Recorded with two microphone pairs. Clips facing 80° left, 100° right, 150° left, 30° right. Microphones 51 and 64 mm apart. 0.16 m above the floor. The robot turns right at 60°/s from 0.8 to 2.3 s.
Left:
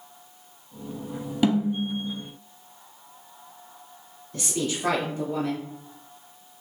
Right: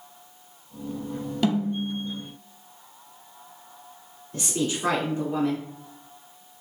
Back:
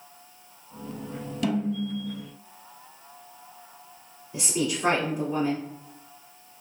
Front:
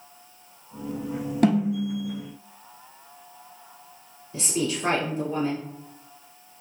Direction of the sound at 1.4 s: 10° left.